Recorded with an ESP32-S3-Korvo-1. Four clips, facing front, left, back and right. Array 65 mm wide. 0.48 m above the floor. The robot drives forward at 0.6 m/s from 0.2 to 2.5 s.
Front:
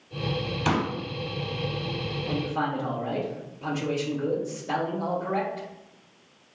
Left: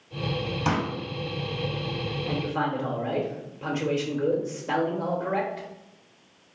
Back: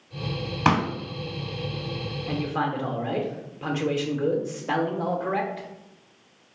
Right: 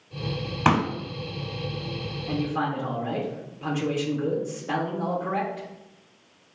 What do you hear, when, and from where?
0.7 s a pop: 130° right, 0.8 m; by 0.9 s 140° right, 0.9 m
2.3 s a man speaking: 165° left, 0.9 m